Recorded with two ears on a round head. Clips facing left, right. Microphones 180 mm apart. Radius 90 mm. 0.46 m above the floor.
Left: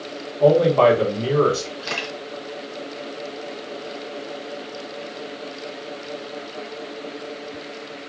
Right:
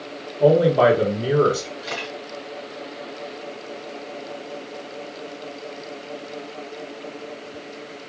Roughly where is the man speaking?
Centre.